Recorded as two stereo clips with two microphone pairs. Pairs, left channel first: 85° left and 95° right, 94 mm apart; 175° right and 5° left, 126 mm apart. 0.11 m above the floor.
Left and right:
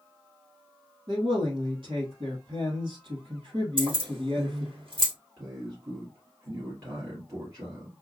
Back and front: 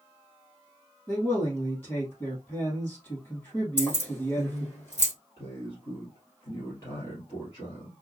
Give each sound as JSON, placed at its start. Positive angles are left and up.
{"t": 1.1, "sound": "a man speaking", "azimuth_deg": -105, "distance_m": 3.0}
{"t": 3.8, "sound": "keys jangling", "azimuth_deg": -100, "distance_m": 2.0}
{"t": 5.4, "sound": "a man speaking", "azimuth_deg": -125, "distance_m": 2.5}